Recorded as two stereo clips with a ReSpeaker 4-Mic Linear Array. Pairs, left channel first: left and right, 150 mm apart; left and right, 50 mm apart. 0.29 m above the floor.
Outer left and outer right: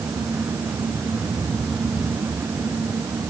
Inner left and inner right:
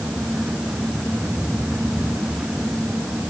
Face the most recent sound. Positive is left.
No sound to turn to.